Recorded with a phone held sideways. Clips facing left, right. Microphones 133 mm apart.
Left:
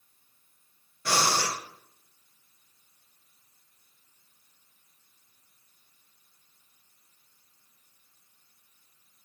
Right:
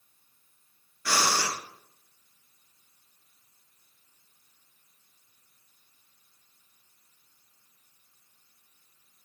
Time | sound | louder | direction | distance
1.1 | breathing | left 1 dB | 25° left (ahead or behind) | 5 m